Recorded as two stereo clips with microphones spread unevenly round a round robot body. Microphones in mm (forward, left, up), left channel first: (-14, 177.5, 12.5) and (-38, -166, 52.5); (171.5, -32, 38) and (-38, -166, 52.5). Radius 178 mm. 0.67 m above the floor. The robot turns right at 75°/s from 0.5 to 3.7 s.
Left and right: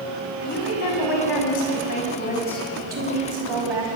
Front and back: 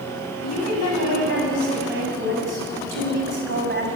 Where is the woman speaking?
20° left, 6 m; by 3.9 s 100° right, 6 m.